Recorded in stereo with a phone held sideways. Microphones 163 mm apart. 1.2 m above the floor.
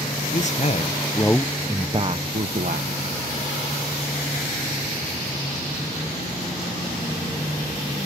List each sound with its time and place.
0.3 s a man speaking: 50° left (ahead or behind); by 3.0 s 65° right (ahead or behind)